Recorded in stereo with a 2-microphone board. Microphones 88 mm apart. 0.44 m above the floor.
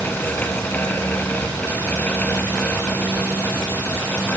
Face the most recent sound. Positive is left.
No sound to turn to.